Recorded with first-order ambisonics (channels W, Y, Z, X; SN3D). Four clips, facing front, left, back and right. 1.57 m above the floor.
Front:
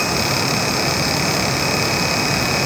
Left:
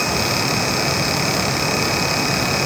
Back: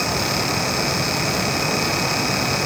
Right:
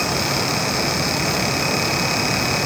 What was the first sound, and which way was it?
Only background noise.